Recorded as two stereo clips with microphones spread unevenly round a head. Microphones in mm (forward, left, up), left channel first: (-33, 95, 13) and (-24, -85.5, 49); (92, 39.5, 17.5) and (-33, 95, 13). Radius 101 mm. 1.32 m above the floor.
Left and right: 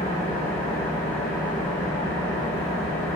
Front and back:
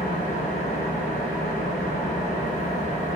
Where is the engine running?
5° left, 1.6 m.